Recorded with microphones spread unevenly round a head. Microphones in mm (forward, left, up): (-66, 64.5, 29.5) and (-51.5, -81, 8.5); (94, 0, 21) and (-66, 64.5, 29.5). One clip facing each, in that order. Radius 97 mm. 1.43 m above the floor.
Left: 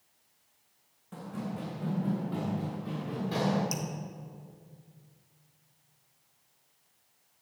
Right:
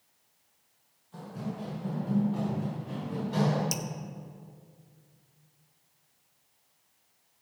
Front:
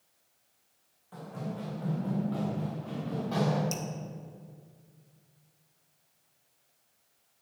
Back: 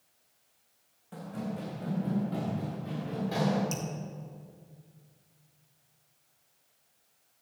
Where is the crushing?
No crushing in this recording.